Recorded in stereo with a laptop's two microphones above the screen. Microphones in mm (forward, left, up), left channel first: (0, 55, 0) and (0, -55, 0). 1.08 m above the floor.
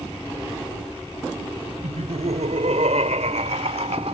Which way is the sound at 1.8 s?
85° right.